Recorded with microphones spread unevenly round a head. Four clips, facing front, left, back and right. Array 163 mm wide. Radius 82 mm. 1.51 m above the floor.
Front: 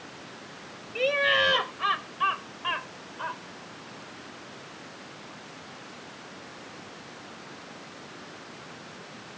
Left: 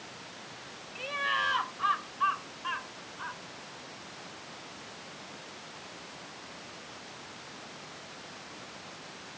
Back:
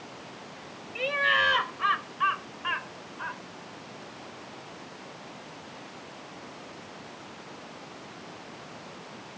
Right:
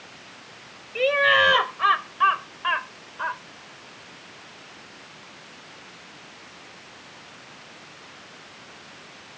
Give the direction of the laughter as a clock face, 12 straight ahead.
2 o'clock.